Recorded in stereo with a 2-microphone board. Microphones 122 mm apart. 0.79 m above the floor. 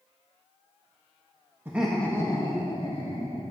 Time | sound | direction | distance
1.6 | laughter | 20° right (ahead or behind) | 0.9 m